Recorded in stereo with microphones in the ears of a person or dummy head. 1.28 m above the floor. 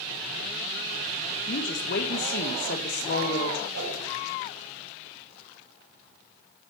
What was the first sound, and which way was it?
A woman speaking, 55° left (ahead or behind).